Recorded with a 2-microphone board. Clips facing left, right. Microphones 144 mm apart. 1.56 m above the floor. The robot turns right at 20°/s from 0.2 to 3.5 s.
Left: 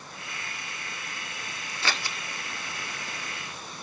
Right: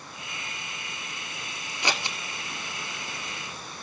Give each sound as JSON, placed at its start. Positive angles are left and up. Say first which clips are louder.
{"t": 1.8, "sound": "scissors", "louder": "right 2 dB", "side_deg": -15, "distance_m": 1.6}